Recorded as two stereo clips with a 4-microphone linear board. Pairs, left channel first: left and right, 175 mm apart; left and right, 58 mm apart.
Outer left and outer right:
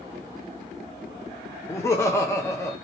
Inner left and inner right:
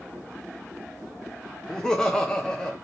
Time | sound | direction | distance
1.7 | laughter | 15° left (ahead or behind) | 0.7 m